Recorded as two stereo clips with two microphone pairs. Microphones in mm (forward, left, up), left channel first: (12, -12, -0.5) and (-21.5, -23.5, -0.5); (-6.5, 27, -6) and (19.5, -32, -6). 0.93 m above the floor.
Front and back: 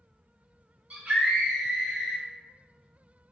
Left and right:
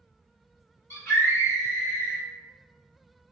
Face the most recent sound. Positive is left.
turn(degrees=85)